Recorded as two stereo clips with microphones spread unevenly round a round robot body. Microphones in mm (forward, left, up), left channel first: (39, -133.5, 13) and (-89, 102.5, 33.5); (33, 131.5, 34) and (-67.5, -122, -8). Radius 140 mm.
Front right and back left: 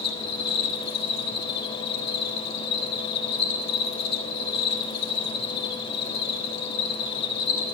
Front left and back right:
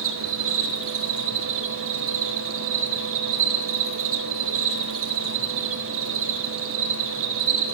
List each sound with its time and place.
0.0 s an insect: 75° right, 1.6 m